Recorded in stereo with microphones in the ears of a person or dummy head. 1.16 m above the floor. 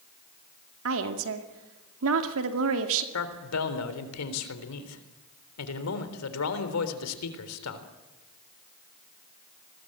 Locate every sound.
0.8 s a woman speaking: 80° right, 2 m
3.1 s a man speaking: 80° left, 3.5 m